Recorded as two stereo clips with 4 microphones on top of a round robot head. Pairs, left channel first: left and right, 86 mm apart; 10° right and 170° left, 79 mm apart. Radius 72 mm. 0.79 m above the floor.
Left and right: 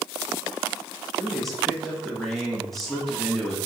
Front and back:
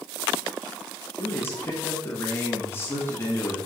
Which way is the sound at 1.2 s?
5° left.